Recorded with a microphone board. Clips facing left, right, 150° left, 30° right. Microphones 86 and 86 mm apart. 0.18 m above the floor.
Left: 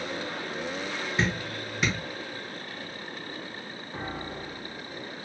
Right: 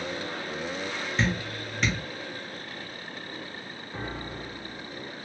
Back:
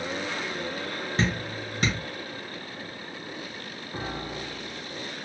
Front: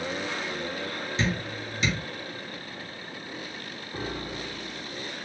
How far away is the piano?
About 2.5 m.